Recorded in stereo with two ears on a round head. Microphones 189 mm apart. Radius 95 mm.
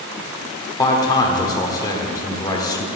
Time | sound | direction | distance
0.8 | a man speaking | 20° left (ahead or behind) | 1.2 m